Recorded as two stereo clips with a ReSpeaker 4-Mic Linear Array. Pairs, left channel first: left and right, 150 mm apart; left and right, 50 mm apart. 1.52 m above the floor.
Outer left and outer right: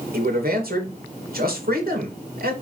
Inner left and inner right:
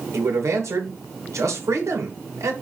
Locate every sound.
0.1 s a man speaking: 85° right, 3 m